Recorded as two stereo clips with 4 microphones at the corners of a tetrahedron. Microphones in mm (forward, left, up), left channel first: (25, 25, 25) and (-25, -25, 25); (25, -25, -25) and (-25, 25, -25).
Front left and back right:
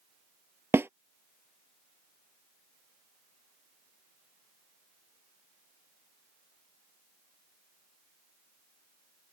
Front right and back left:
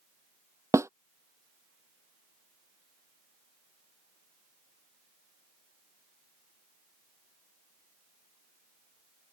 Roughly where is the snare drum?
Behind.